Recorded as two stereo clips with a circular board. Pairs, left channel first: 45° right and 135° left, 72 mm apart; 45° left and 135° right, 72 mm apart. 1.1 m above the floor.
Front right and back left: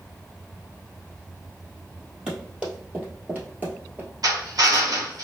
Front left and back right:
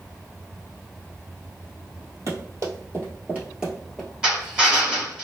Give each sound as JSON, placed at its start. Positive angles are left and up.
{"t": 2.3, "sound": "running footsteps", "azimuth_deg": -150, "distance_m": 1.6}
{"t": 4.2, "sound": "a drill", "azimuth_deg": 150, "distance_m": 1.2}